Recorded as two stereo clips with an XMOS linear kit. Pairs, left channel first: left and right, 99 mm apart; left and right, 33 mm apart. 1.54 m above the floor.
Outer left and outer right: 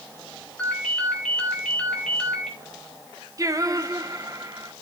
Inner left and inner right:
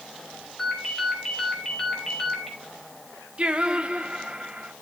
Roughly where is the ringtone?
Centre.